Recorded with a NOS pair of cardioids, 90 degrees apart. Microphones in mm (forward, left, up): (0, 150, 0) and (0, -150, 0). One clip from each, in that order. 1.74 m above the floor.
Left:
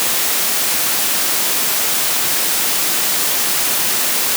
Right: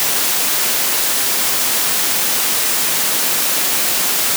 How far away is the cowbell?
I don't hear a cowbell.